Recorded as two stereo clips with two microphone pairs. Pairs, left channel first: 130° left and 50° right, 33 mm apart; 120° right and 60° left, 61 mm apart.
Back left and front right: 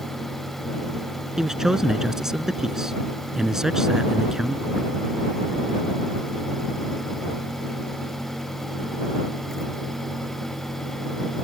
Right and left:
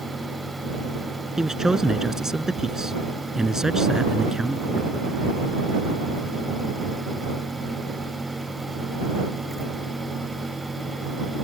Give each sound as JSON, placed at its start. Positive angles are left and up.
{"t": 1.4, "sound": "a man speaking", "azimuth_deg": -10}